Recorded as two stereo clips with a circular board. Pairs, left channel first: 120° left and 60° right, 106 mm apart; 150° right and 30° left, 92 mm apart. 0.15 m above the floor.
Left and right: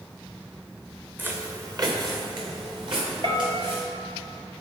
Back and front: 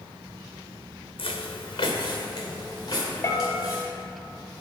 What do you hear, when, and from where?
1.2 s footsteps: 135° right, 0.8 m; by 3.8 s 95° right, 4 m
3.2 s a bell: 90° right, 1.0 m